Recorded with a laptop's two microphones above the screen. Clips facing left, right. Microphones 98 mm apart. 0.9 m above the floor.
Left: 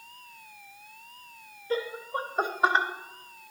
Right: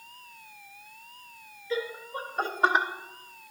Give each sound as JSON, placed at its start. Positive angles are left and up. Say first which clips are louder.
{"t": 1.7, "sound": "laughter", "louder": "left 2 dB", "side_deg": 50, "distance_m": 1.0}